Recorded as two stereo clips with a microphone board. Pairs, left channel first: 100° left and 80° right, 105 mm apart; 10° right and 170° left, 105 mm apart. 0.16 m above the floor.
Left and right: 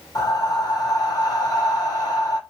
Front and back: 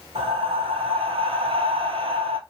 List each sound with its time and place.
0.1 s breathing: 150° left, 0.7 m